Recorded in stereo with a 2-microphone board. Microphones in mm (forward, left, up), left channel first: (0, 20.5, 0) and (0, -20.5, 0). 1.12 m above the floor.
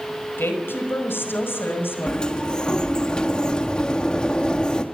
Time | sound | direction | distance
0.4 | a woman speaking | 60° left (ahead or behind) | 5 m
2.1 | a sliding door | 20° left (ahead or behind) | 1.7 m